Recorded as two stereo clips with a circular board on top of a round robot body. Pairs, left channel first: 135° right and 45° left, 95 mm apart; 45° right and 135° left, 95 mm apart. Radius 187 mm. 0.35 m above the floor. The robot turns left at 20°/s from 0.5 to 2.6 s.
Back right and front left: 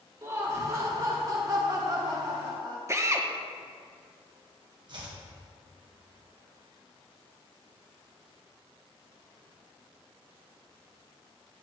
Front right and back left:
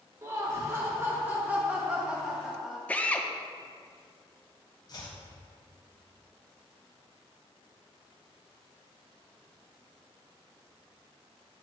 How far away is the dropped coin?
I don't hear a dropped coin.